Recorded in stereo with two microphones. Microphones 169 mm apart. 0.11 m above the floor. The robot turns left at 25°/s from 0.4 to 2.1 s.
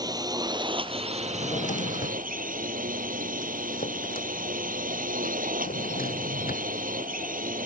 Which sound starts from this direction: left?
A drawer, at 1.2 s.